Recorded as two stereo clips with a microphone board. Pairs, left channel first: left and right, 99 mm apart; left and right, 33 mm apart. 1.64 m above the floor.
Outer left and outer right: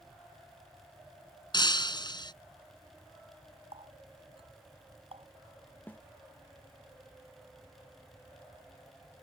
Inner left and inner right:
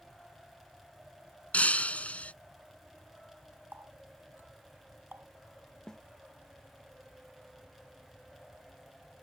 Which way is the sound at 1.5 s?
50° left (ahead or behind).